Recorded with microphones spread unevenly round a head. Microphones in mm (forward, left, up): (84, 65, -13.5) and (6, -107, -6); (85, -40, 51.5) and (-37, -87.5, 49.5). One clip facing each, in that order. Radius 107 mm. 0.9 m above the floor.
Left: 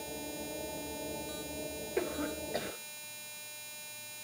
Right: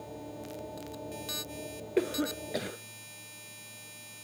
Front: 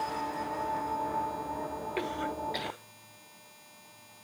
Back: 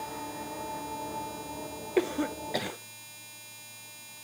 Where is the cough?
160° right, 0.7 m.